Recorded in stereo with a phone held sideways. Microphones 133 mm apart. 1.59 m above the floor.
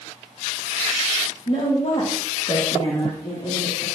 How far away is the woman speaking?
About 1.8 m.